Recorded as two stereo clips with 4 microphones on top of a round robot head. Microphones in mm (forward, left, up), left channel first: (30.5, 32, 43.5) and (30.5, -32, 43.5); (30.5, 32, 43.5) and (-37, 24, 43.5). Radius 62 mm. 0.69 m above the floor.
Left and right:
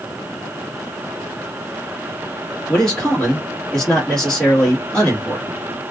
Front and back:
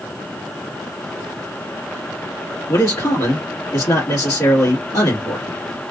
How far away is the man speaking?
About 1.3 m.